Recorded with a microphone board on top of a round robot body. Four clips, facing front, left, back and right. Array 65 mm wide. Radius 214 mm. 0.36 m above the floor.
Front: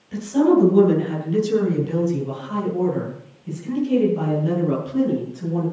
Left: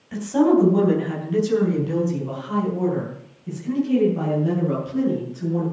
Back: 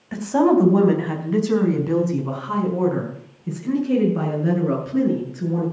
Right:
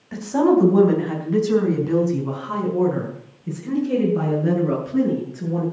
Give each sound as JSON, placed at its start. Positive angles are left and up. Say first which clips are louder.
{"t": 0.1, "sound": "a woman speaking", "louder": "even, even", "azimuth_deg": -165, "distance_m": 3.5}